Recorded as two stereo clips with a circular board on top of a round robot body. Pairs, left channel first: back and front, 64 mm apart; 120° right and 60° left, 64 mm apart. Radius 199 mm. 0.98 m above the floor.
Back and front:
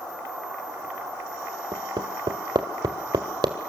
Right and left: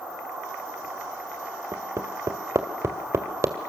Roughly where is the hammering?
Ahead.